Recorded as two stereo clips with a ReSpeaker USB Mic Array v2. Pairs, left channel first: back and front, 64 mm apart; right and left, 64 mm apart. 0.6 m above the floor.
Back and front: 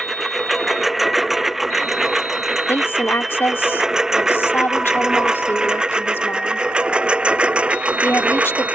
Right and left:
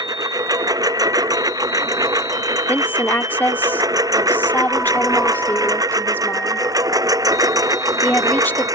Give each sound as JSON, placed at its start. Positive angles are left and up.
{"t": 0.0, "sound": "a lawn mower", "azimuth_deg": 90}
{"t": 2.7, "sound": "a woman speaking", "azimuth_deg": -140}